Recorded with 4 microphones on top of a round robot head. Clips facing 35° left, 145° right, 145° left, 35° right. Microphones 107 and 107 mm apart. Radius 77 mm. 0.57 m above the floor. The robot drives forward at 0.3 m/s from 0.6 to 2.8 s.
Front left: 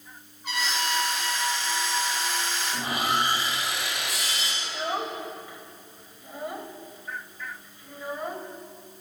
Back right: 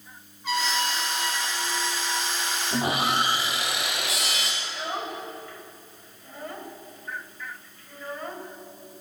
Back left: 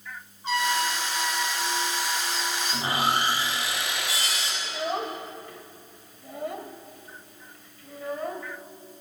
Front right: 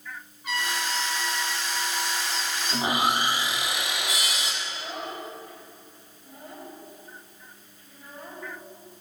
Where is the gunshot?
I don't hear a gunshot.